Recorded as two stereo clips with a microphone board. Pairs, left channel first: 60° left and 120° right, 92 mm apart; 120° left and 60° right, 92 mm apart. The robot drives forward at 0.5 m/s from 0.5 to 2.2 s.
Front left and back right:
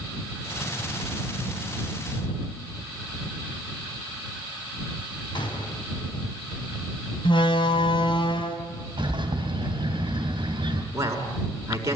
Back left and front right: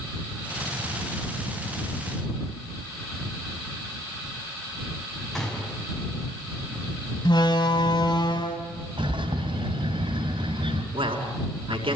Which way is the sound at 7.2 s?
85° left.